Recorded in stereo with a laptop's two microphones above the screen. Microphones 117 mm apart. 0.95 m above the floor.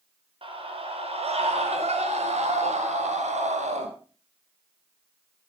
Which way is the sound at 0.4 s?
50° right (ahead or behind).